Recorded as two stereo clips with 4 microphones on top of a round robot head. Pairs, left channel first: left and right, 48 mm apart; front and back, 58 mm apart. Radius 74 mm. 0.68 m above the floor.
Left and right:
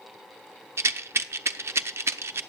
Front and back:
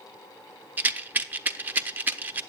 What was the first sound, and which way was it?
A rattle, 120° right.